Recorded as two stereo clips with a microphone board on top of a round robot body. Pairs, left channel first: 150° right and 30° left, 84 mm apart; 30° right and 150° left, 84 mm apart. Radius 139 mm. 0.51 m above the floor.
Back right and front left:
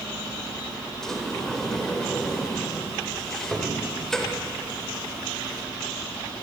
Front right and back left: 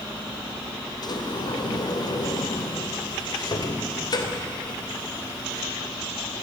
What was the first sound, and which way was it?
A sliding door, 65° right.